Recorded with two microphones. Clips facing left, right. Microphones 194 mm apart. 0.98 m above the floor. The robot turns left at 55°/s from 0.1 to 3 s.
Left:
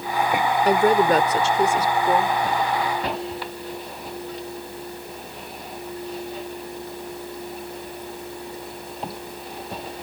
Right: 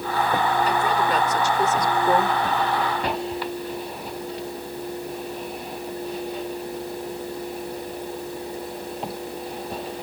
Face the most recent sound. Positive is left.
turn(degrees=-55)